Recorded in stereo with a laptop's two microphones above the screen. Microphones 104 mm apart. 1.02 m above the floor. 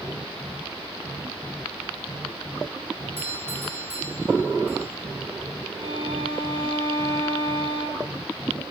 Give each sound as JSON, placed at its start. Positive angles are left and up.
{"t": 3.2, "sound": "a doorbell", "side_deg": -20, "distance_m": 7.5}
{"t": 5.8, "sound": "a violin", "side_deg": -50, "distance_m": 6.5}